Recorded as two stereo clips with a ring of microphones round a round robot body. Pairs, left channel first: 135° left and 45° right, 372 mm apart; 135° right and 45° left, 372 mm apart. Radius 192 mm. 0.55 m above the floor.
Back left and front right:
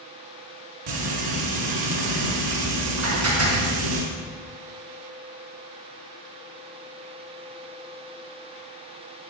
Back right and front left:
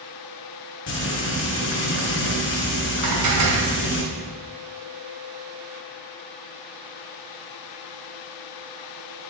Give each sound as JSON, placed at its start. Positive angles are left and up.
{"t": 0.9, "sound": "frying", "azimuth_deg": -75, "distance_m": 4.0}
{"t": 3.0, "sound": "dishes clattering", "azimuth_deg": 5, "distance_m": 3.5}